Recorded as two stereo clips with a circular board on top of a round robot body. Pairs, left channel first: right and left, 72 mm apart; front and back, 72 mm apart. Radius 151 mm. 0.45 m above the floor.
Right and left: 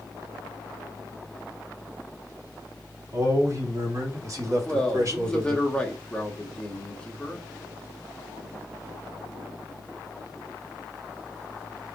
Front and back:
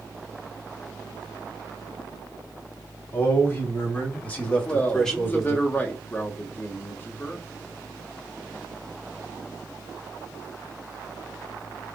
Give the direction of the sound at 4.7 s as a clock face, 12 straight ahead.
1 o'clock.